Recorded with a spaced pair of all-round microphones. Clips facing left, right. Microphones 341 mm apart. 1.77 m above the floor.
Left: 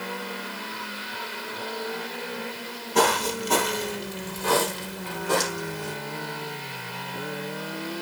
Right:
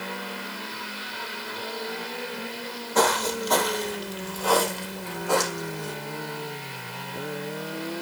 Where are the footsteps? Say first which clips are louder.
Left 1 dB; 40° left (ahead or behind), 2.5 m; by 5.9 s 20° left (ahead or behind), 4 m.